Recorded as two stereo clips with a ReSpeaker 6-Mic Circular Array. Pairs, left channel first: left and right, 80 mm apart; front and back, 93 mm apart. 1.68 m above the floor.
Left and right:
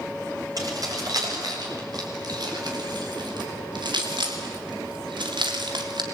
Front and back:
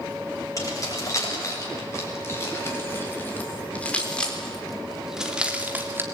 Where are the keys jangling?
50° right, 8 m; by 6.0 s 115° right, 3 m.